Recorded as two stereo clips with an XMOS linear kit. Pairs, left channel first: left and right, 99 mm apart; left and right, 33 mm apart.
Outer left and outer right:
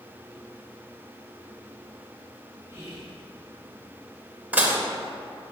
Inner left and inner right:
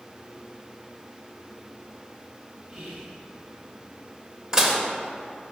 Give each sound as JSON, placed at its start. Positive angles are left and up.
{"t": 2.7, "sound": "whispering", "side_deg": -35, "distance_m": 1.2}
{"t": 4.5, "sound": "dishes clattering", "side_deg": -15, "distance_m": 0.7}